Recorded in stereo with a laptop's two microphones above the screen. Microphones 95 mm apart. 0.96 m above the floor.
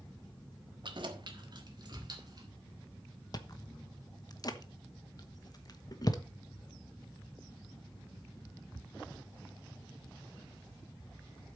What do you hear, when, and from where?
0.8 s keys jangling: 55° right (ahead or behind), 1.2 m; by 2.5 s 45° right (ahead or behind), 2.0 m
3.3 s chewing: 45° left (ahead or behind), 1.1 m